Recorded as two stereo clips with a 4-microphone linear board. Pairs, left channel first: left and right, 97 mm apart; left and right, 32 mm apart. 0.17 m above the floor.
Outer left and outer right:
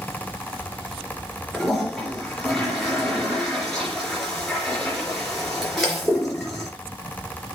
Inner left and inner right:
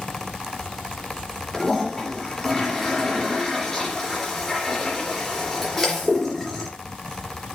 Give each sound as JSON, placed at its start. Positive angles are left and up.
{"t": 1.5, "sound": "a toilet flushing", "side_deg": 5, "distance_m": 3.0}